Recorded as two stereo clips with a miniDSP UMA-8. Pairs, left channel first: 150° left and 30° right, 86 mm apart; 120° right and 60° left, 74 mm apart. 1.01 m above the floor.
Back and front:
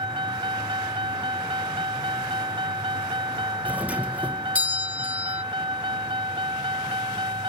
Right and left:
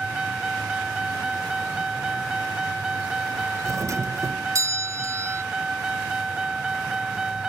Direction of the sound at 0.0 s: 20° right.